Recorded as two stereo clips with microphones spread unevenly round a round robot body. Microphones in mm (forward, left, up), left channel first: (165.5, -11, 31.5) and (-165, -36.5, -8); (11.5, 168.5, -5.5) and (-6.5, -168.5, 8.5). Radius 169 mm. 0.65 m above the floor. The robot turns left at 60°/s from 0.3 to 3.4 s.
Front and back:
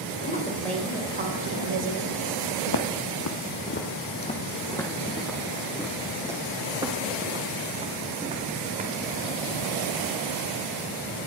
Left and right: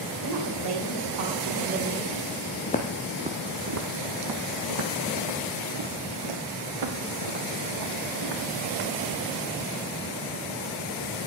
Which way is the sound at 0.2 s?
60° right.